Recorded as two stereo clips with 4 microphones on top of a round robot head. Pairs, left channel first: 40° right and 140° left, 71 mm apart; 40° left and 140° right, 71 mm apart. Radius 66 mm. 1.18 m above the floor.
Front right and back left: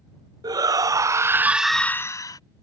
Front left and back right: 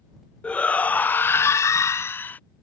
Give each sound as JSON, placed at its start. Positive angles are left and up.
{"t": 0.4, "sound": "a shout", "azimuth_deg": 115}